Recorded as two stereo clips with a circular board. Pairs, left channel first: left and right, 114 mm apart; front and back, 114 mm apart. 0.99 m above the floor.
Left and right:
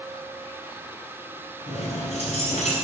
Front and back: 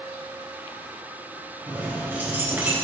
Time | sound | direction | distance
1.7 | keys jangling | 105° left | 3 m